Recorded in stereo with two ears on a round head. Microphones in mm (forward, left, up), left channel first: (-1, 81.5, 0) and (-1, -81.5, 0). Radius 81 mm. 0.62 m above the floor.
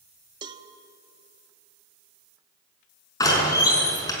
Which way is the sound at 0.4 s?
25° right (ahead or behind).